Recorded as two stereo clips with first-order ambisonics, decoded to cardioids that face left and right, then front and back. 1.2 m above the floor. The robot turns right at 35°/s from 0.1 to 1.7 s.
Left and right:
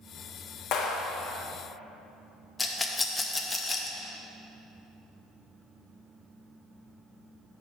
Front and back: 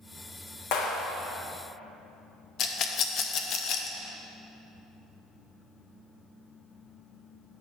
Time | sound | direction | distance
0.7 | a clap | 40° left | 0.9 m
2.6 | a rattle | 15° left | 0.5 m